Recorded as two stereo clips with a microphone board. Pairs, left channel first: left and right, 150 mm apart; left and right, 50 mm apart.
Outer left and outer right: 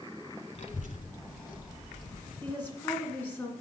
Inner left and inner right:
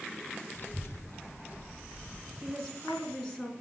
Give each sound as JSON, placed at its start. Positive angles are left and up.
{"t": 0.6, "sound": "a child speaking", "side_deg": 45, "distance_m": 0.9}
{"t": 2.4, "sound": "a woman speaking", "side_deg": 10, "distance_m": 2.0}